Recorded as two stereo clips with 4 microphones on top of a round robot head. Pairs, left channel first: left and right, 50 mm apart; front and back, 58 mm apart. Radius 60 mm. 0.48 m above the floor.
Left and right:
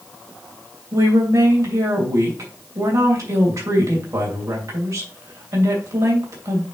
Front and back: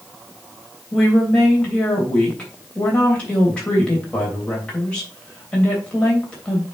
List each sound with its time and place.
0.9 s a woman speaking: 75° right, 3 m